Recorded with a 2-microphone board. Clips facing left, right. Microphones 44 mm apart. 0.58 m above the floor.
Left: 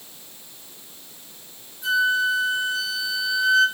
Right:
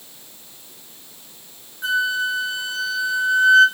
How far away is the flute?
About 3.5 m.